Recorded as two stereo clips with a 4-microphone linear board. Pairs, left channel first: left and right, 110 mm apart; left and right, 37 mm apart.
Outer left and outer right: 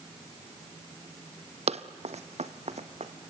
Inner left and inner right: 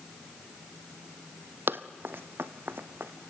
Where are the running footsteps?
70° right (ahead or behind), 0.9 m; by 3.1 s 80° right, 1.7 m.